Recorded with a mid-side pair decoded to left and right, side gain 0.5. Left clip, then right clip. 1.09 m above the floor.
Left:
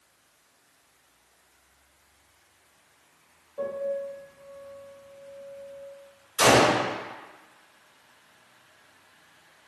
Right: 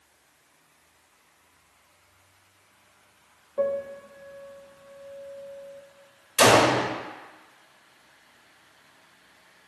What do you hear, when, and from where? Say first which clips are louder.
3.6 s a piano: right 2 dB; 60° right, 1.0 m
6.4 s a gunshot: right 1 dB; 65° right, 1.2 m